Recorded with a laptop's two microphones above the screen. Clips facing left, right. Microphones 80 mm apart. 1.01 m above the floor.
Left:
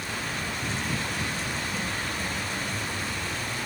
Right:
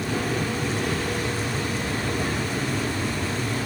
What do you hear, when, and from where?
0.0 s an aircraft: 65° right (ahead or behind); by 3.7 s 60° right (ahead or behind)